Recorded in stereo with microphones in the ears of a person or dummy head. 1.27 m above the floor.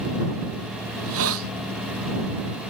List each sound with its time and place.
0.9 s a hiss: 80° right